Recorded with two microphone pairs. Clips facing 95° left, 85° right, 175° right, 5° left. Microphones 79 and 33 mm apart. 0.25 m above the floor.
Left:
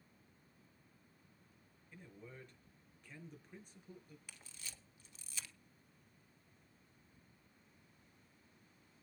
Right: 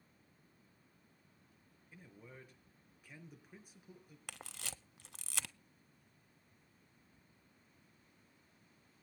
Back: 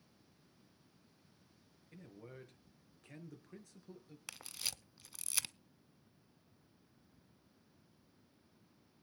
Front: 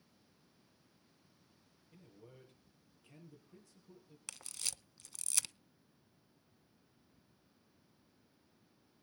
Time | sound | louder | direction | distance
1.9 | a man speaking | left 1 dB, back 5 dB | 170° right | 5 m
4.3 | a camera shutter | right 11 dB, back 1 dB | 90° right | 0.5 m